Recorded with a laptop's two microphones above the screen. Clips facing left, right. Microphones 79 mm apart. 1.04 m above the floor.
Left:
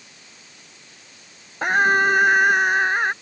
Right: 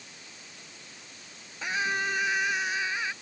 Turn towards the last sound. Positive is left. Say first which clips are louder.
# left 12 dB
turn(degrees=55)  # may be behind; listen again after turning